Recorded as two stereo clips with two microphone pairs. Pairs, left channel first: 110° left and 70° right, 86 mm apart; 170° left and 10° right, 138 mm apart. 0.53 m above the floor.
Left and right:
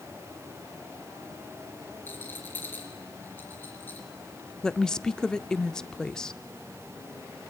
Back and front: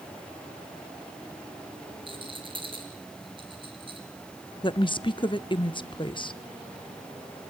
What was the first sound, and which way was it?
A rattle, 45° left.